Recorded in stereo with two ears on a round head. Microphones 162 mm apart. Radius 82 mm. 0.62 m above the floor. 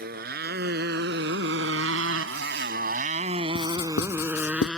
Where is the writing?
85° left.